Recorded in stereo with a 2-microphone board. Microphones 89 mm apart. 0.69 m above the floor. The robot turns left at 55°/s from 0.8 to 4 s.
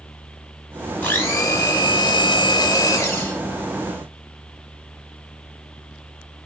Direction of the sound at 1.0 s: 155° left.